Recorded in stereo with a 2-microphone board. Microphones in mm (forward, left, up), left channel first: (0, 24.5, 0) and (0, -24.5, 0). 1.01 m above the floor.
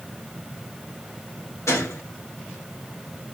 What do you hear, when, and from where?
1.7 s a gunshot: 70° left (ahead or behind), 1.2 m